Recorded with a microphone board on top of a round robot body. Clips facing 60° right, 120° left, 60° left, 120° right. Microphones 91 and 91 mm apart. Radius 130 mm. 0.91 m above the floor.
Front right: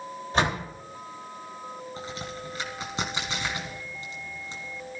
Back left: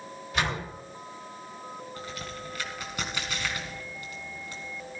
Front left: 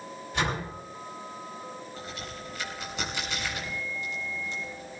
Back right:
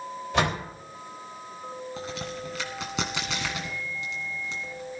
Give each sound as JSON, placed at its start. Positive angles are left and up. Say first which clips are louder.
{"t": 0.3, "sound": "a door slam", "louder": "front right 4 dB, back right 4 dB", "azimuth_deg": -120, "distance_m": 3.0}
{"t": 2.0, "sound": "a crack", "louder": "front right 2 dB, back right 5 dB", "azimuth_deg": -130, "distance_m": 1.8}